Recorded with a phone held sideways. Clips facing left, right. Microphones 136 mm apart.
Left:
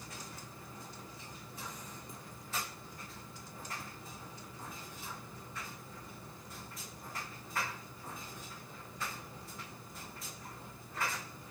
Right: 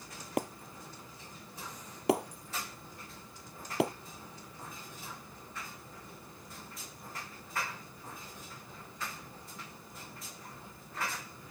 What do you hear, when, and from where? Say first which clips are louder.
0.4 s breaking glass: right 13 dB; 75° right (ahead or behind)